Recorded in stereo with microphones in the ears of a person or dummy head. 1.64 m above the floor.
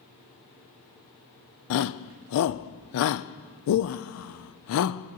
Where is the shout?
75° left (ahead or behind), 0.5 m.